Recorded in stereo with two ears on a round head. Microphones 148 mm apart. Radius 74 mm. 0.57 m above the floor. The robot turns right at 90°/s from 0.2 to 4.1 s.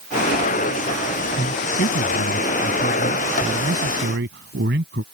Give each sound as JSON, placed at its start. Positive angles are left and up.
{"t": 1.4, "sound": "a man speaking", "azimuth_deg": 10}